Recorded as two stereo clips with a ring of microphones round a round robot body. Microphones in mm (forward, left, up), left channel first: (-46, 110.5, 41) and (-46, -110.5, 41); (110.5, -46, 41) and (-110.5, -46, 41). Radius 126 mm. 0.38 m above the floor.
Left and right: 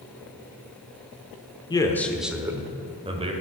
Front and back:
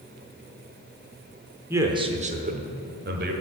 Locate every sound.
1.7 s a man speaking: 120° left, 0.9 m; by 3.3 s 150° right, 1.6 m